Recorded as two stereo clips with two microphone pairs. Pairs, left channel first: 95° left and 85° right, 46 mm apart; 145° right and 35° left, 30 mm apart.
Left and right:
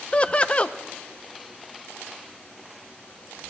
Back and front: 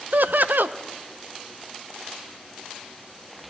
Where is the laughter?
30° left, 0.5 m.